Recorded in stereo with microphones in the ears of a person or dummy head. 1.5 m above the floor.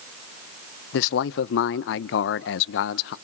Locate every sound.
0.9 s a man speaking: 60° left (ahead or behind), 0.8 m